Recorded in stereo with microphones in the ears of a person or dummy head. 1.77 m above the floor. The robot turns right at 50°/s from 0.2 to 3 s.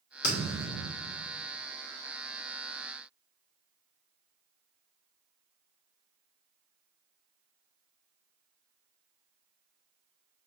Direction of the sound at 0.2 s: 65° left.